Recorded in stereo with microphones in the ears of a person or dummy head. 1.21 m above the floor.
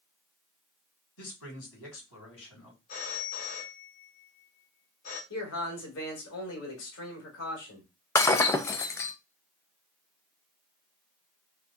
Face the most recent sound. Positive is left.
turn(degrees=15)  # may be behind; listen again after turning